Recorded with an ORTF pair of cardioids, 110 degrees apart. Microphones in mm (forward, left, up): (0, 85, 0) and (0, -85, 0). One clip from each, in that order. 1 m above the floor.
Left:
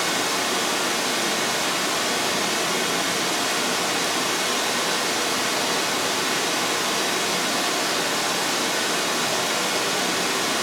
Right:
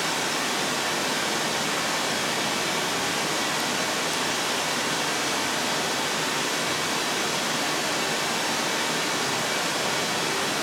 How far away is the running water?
About 0.9 m.